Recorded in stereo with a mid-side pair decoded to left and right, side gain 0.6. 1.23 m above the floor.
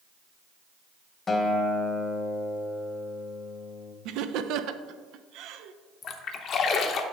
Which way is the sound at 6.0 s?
50° left.